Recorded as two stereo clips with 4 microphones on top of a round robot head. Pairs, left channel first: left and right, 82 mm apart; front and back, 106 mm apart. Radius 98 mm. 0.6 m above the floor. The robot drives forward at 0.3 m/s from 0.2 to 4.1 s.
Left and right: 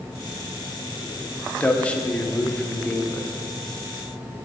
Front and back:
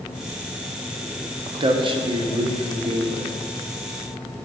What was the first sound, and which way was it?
A man speaking, 160° left.